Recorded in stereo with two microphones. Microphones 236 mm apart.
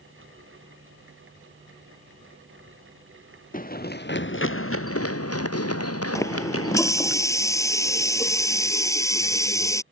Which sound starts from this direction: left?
Running footsteps, at 3.5 s.